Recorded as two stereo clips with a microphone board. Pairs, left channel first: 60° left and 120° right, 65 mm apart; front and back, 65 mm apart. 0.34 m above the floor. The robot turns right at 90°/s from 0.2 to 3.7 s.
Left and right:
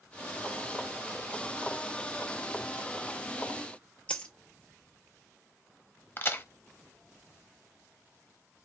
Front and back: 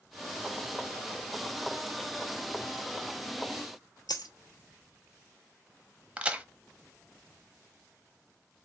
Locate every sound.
4.1 s a dropped coin: 10° right, 0.9 m
6.2 s a crack: 110° left, 0.7 m